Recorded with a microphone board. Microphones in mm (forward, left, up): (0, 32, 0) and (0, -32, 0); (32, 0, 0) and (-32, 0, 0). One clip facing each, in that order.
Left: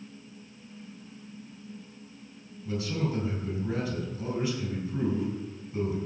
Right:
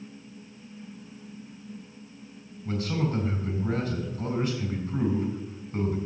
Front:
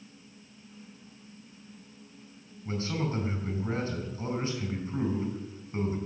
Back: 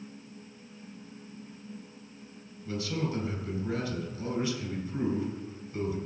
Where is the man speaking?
50° right, 4.5 m.